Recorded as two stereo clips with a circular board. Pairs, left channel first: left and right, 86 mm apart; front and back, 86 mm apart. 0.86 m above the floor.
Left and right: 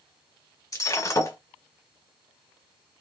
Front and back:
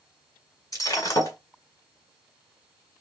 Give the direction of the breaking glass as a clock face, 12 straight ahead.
10 o'clock.